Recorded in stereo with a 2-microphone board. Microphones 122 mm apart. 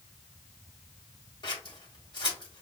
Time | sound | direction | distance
1.4 | scissors | 40° left (ahead or behind) | 1.5 m